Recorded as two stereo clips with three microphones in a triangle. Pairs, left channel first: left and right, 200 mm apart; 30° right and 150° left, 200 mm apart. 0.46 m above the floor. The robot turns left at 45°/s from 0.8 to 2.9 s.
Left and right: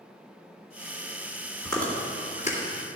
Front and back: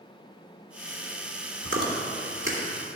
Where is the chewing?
Straight behind, 2 m; by 2.6 s 135° left, 2 m.